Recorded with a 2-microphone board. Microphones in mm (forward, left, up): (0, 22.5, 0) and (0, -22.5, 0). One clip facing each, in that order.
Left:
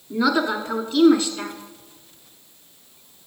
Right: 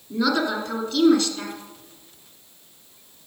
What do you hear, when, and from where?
0.1 s a woman speaking: 15° left (ahead or behind), 1.2 m